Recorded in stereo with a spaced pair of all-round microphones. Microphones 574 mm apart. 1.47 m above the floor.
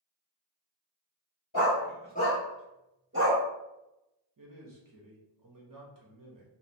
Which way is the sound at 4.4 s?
35° right (ahead or behind).